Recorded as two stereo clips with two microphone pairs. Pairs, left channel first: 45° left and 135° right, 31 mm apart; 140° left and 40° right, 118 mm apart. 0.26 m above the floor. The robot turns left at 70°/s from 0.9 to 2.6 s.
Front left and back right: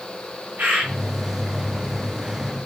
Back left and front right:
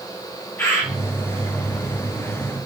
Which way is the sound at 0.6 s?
150° right.